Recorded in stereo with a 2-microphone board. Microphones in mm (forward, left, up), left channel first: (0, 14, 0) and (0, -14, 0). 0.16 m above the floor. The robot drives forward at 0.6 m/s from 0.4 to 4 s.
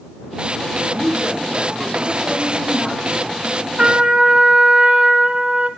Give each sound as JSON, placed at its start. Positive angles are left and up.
{"t": 0.9, "sound": "a woman speaking", "side_deg": -50, "distance_m": 7.0}
{"t": 3.8, "sound": "a trumpet", "side_deg": -35, "distance_m": 1.7}